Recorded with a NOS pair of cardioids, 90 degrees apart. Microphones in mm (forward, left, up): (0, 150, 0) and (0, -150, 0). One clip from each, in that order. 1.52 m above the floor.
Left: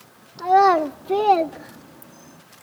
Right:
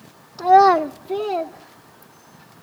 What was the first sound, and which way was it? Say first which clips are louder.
A child speaking: right 3 dB; 30° right.